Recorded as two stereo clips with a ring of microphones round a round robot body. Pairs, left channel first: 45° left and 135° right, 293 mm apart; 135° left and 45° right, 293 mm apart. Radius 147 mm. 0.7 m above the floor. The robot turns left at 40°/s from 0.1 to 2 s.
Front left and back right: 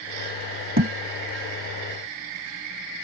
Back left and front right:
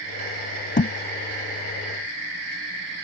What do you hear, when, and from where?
0.8 s a thud: 175° right; by 0.9 s straight behind